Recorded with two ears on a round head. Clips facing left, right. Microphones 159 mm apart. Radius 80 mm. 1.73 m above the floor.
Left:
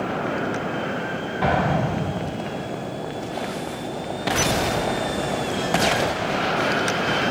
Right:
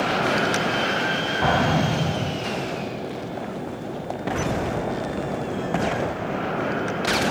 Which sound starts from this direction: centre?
An explosion, at 1.4 s.